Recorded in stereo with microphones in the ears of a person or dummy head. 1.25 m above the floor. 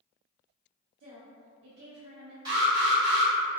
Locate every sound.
1.0 s a woman speaking: 60° right (ahead or behind), 0.6 m
2.5 s an alarm: 25° right (ahead or behind), 1.4 m